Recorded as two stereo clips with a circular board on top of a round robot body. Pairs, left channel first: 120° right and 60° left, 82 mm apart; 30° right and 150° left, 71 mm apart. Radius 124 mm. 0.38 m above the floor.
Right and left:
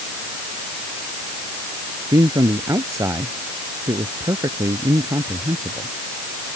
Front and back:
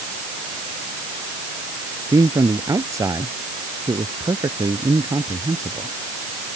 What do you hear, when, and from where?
2.1 s a man speaking: 110° left